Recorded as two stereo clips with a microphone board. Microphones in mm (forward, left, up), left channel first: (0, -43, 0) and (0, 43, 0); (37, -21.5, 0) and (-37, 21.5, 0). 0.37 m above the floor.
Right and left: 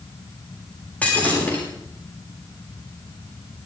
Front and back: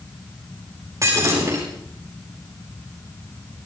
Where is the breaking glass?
160° right, 9.5 m.